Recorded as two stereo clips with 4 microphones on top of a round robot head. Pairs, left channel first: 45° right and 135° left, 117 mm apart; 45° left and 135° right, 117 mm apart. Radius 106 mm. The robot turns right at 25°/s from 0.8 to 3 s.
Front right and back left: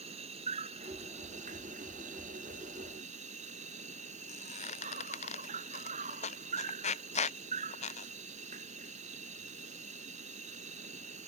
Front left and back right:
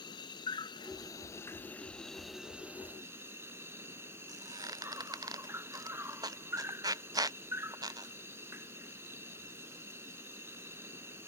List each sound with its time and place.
0.0 s an insect: 100° left; by 11.3 s 155° left
4.3 s a squeak: 75° right